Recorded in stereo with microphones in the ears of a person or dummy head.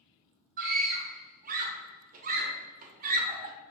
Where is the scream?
45° right (ahead or behind), 0.7 m.